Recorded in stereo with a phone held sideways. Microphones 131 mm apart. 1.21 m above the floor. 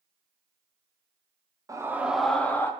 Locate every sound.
1.7 s a scream: 25° right (ahead or behind), 0.6 m; by 2.7 s 20° left (ahead or behind), 0.8 m